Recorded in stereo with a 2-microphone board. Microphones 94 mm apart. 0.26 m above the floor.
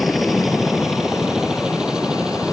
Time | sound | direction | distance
0.0 | a helicopter | centre (ahead or behind) | ?